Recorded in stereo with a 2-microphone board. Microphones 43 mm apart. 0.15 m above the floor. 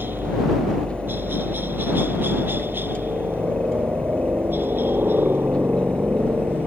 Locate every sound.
0.0 s a helicopter: 50° right (ahead or behind)